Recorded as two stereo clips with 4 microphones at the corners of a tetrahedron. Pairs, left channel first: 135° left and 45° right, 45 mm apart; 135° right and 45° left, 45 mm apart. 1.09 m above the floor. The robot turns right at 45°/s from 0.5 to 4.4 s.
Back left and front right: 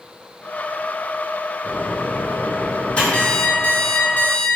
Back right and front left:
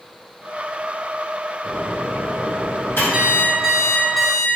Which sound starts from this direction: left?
An alarm clock, at 3.1 s.